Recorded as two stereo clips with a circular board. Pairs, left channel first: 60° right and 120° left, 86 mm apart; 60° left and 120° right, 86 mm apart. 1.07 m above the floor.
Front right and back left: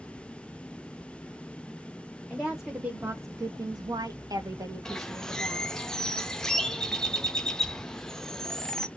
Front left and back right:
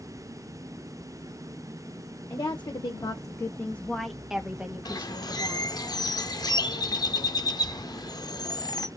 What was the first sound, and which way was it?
A woman speaking, 30° left.